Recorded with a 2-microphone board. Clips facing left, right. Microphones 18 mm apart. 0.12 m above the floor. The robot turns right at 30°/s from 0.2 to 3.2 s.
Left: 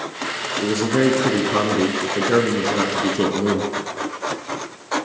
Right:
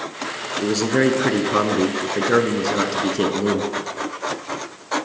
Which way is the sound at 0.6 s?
95° right.